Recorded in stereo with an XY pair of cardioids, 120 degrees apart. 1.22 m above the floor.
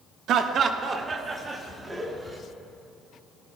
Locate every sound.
0.3 s laughter: 65° right, 1.0 m; by 2.4 s 15° right, 2.5 m